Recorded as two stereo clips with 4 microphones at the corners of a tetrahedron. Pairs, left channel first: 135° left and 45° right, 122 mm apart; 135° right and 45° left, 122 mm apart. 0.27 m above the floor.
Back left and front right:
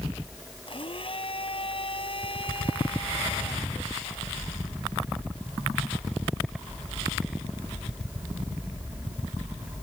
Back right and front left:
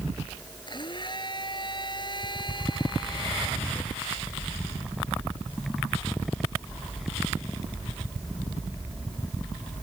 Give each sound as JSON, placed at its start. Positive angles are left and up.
{"t": 0.7, "sound": "a blender", "azimuth_deg": 175}